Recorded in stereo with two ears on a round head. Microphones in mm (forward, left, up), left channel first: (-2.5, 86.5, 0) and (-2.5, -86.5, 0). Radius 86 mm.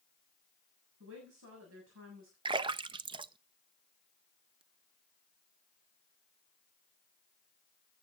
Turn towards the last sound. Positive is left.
turn(degrees=-25)  # may be behind; listen again after turning